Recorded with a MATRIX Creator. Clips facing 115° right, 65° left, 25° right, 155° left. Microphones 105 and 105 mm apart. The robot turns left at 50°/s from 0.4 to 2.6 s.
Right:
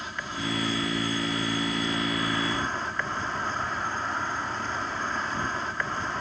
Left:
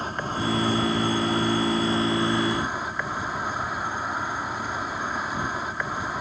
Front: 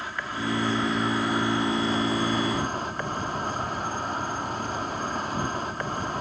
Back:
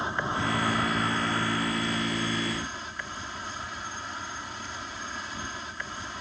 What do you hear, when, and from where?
0.0 s an insect: 100° left; by 6.2 s 10° right